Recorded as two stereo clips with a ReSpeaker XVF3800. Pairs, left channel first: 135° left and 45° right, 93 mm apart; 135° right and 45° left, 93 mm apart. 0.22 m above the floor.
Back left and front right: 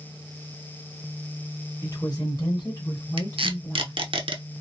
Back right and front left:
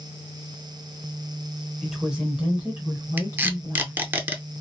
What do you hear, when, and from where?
1.8 s a woman speaking: 140° left, 1.4 m; by 4.0 s 70° left, 1.7 m
3.2 s tape being pulled: 25° right, 0.6 m